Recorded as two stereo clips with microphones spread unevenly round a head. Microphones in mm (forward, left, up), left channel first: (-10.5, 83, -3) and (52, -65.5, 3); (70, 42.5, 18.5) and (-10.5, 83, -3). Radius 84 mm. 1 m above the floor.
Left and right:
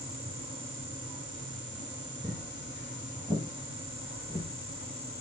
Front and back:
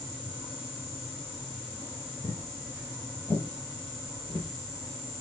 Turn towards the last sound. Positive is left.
turn(degrees=30)